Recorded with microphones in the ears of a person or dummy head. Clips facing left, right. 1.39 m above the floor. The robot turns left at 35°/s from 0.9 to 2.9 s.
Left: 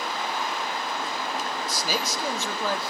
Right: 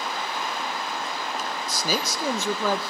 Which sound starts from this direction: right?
A man speaking, at 1.7 s.